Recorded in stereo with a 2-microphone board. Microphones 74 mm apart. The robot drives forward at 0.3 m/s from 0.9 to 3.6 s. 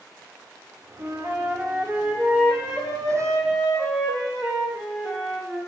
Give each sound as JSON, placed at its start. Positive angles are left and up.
{"t": 1.0, "sound": "a flute", "side_deg": -30, "distance_m": 0.6}